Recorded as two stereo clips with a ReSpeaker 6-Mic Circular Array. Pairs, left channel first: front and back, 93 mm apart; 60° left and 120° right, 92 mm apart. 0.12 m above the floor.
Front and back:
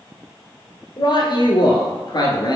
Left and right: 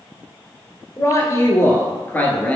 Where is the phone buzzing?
No phone buzzing in this recording.